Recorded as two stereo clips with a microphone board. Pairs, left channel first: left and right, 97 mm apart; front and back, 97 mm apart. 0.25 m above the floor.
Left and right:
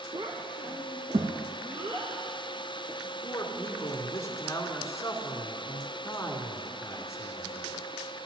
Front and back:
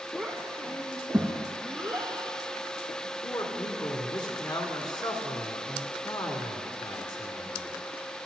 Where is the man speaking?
35° left, 2 m.